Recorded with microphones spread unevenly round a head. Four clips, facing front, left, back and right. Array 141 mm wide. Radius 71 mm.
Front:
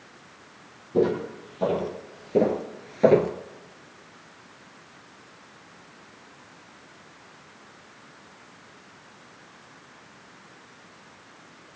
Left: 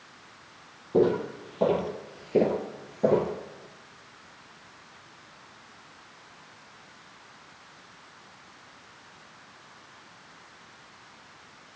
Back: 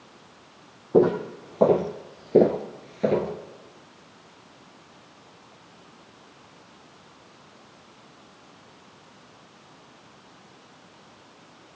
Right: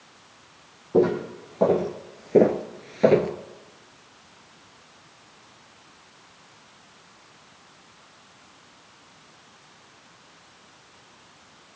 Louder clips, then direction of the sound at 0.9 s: Right 2 dB, back 4 dB; 165° right.